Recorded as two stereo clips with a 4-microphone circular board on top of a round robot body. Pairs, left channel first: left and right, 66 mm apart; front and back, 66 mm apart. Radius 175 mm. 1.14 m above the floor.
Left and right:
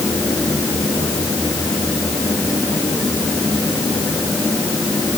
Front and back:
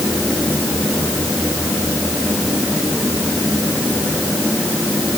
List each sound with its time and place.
Only background noise.